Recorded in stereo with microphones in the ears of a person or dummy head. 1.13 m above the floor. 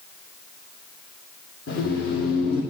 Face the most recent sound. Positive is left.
turn(degrees=75)  # may be behind; listen again after turning